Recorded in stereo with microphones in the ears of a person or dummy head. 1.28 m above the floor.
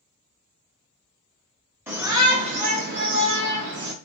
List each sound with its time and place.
1.9 s a shout: 10° right (ahead or behind), 0.9 m; by 3.9 s 60° right (ahead or behind), 0.9 m